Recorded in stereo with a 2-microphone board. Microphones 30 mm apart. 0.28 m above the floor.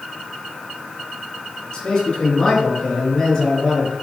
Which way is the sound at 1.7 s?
25° left (ahead or behind).